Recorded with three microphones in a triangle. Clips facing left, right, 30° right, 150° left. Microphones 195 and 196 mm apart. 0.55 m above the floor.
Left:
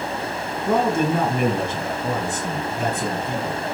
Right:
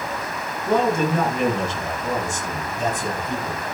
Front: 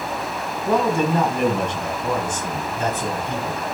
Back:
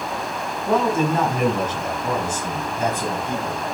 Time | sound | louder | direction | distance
0.7 | a man speaking | even, even | 60° left | 4.5 m